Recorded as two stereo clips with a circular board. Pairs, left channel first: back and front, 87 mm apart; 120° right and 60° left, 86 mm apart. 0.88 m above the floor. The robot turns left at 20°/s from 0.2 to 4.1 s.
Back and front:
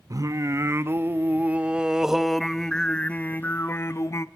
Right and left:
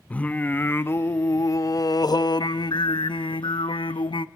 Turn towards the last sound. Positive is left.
turn(degrees=-125)